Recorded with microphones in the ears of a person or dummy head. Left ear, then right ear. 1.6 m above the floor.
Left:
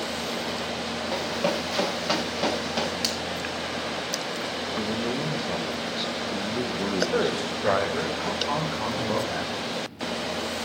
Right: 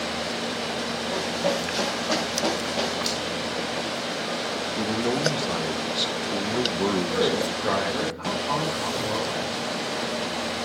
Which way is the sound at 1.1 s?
80° left.